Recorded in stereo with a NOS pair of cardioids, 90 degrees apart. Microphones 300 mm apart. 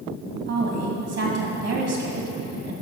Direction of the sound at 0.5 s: 55° right.